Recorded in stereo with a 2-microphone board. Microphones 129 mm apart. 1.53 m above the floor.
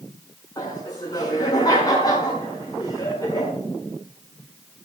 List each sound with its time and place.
0.6 s laughter: 30° left (ahead or behind), 6 m